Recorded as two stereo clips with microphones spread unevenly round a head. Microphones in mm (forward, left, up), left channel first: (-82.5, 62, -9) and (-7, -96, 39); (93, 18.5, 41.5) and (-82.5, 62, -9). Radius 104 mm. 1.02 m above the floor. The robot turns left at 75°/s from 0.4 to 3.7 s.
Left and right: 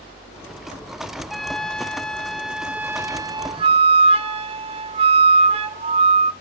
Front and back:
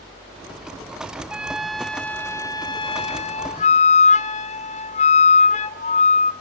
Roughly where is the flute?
Behind left.